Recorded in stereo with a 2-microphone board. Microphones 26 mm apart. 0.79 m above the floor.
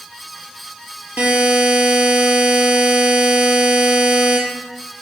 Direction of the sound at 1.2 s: 65° right (ahead or behind).